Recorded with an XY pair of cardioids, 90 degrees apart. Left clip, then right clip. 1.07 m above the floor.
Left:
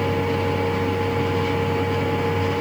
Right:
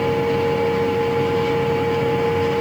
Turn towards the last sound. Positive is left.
turn(degrees=-5)